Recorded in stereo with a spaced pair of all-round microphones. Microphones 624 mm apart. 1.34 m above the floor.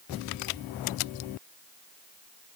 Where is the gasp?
I don't hear a gasp.